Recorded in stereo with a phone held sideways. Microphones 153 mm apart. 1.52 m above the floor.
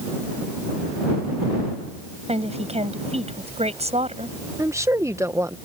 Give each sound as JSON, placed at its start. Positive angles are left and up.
{"t": 2.3, "sound": "a woman speaking", "side_deg": -45}
{"t": 4.6, "sound": "a woman speaking", "side_deg": -20}